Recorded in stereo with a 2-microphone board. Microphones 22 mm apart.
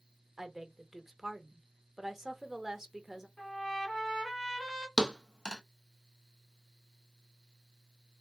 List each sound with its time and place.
0.4 s a woman speaking: 20° right (ahead or behind), 1.0 m
3.4 s a trumpet: 35° left (ahead or behind), 1.7 m
5.0 s a thud: 40° left (ahead or behind), 0.5 m